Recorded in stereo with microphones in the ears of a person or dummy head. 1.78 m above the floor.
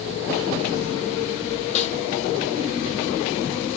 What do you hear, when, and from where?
1.8 s a snare drum: 40° left (ahead or behind), 0.9 m